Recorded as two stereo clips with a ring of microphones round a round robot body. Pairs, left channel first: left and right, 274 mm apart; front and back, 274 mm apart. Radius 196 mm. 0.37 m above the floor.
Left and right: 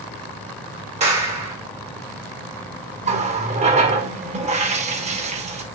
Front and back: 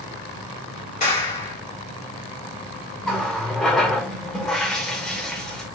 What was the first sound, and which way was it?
A clap, 40° right.